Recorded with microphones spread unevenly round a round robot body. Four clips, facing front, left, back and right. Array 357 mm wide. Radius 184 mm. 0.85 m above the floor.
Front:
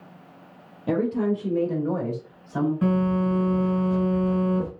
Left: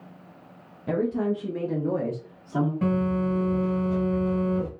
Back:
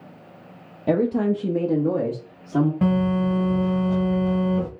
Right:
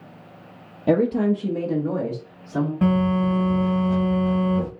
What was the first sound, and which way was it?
A woman speaking, 115° right.